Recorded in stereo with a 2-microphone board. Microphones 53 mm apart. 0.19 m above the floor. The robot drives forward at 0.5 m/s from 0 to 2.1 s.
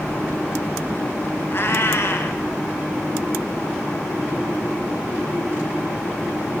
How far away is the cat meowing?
About 0.9 m.